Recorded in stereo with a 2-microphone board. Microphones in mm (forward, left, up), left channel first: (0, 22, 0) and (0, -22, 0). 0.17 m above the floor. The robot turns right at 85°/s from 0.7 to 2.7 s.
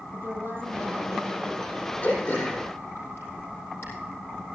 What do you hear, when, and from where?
0.1 s a woman speaking: 120° right, 5.5 m; by 1.7 s 35° right, 5.5 m
2.0 s throat clearing: 30° left (ahead or behind), 6.5 m; by 3.9 s 80° left, 6.5 m